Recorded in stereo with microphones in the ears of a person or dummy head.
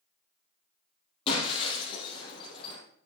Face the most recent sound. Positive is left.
turn(degrees=30)  # may be behind; listen again after turning